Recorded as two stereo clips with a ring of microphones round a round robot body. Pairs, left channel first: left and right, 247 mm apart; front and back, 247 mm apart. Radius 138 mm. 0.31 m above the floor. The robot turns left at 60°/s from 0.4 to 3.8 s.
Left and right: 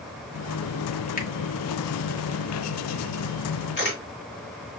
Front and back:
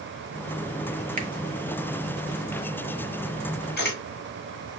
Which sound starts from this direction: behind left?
A finger snap, at 1.2 s.